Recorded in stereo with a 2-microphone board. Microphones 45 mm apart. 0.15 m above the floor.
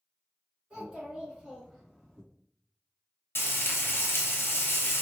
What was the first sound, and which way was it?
A child speaking, 20° right (ahead or behind).